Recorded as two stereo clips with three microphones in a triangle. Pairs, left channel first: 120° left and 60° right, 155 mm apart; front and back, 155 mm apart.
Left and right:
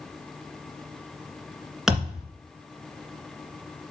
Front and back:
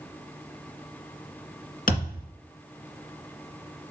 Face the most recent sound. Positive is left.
turn(degrees=30)